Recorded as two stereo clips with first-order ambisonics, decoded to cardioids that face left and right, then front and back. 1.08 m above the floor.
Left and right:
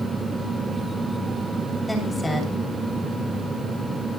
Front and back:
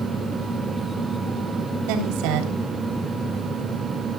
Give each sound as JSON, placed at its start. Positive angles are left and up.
{"t": 1.9, "sound": "a woman speaking", "azimuth_deg": 175, "distance_m": 3.5}